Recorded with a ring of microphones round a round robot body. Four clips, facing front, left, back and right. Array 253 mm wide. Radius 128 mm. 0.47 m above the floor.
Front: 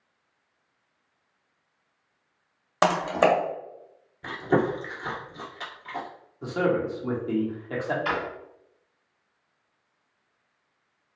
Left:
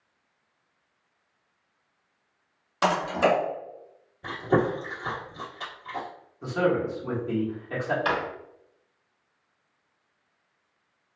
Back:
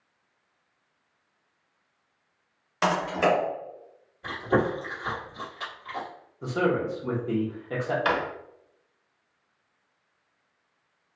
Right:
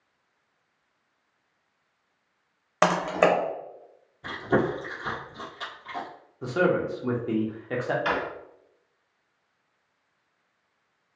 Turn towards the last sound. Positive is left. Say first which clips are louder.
# left 2 dB, back 3 dB
turn(degrees=170)